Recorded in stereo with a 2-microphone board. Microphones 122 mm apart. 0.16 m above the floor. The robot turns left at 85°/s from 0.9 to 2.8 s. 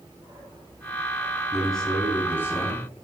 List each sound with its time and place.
1.5 s a man speaking: centre (ahead or behind), 1.0 m; by 3.0 s 20° left (ahead or behind), 1.0 m